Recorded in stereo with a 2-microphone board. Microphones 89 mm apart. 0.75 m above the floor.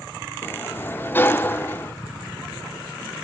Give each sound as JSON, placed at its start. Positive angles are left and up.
{"t": 0.4, "sound": "a sliding door", "side_deg": 20, "distance_m": 0.7}